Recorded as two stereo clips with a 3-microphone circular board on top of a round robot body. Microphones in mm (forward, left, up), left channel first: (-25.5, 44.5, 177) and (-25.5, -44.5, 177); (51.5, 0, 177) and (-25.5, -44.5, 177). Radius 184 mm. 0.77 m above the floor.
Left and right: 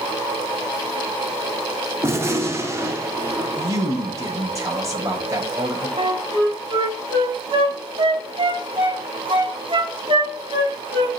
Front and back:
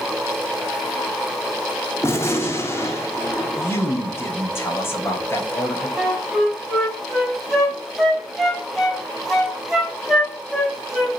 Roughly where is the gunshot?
Ahead right.